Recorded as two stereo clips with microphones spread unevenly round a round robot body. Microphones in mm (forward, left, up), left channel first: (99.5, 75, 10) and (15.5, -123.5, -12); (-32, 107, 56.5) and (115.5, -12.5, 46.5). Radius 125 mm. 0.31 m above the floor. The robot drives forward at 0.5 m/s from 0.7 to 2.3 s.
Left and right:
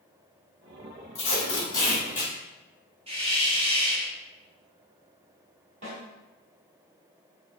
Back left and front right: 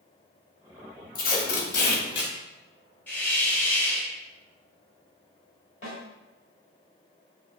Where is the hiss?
140° right, 0.8 m.